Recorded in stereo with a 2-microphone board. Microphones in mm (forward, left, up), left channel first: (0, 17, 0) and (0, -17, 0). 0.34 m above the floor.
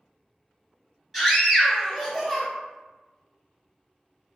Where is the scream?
10° right (ahead or behind), 1.3 m.